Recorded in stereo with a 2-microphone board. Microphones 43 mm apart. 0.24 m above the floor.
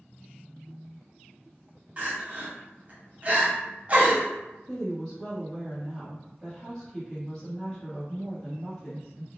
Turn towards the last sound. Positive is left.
turn(degrees=10)  # may be behind; listen again after turning